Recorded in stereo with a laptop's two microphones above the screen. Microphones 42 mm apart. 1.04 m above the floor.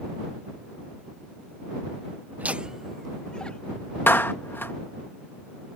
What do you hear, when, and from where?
2.4 s laughter: 50° right (ahead or behind); by 3.9 s 30° left (ahead or behind)
4.1 s a clap: 60° left (ahead or behind)